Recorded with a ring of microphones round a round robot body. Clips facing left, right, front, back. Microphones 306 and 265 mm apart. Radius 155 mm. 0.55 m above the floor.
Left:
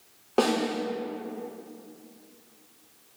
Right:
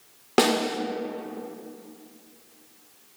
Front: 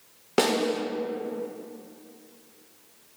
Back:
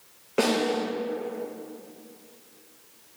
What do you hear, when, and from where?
0.4 s a snare drum: 40° right, 0.9 m